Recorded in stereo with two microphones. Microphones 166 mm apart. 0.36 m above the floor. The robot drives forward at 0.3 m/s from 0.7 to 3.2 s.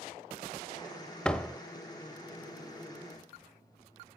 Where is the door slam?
5° left (ahead or behind), 0.9 m.